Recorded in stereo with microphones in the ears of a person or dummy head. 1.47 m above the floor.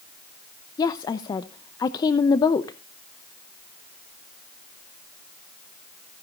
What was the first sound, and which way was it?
A woman speaking, 25° left (ahead or behind).